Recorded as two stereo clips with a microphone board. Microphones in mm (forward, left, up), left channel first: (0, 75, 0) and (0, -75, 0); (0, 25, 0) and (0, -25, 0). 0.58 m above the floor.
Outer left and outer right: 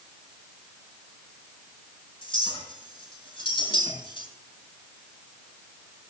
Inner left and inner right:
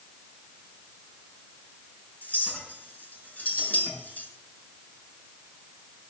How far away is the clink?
About 5.5 m.